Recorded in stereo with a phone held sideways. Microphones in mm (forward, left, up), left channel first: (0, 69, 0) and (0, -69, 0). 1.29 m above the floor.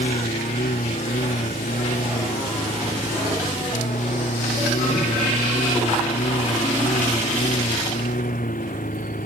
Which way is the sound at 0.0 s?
85° left.